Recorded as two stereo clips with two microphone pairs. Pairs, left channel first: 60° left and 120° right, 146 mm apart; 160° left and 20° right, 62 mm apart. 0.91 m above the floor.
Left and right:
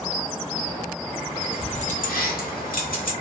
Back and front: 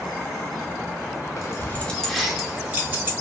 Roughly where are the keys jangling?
Behind left.